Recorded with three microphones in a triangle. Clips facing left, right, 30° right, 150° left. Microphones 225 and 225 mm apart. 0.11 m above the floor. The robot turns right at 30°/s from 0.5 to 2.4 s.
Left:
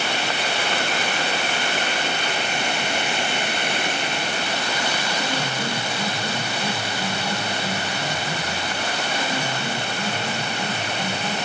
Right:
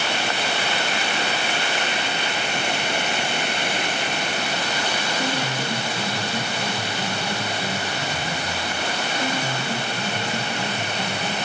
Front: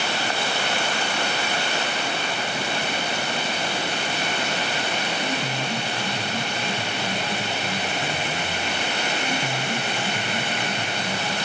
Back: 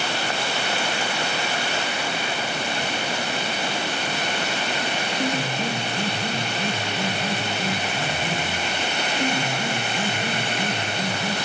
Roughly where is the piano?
Behind.